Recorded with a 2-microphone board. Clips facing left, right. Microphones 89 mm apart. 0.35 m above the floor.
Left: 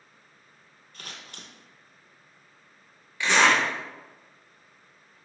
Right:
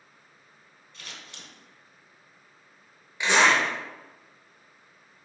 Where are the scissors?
55° left (ahead or behind), 0.7 m.